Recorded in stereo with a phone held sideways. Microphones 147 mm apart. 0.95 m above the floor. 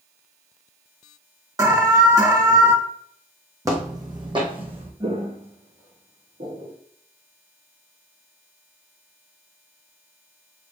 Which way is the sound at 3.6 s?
20° right (ahead or behind).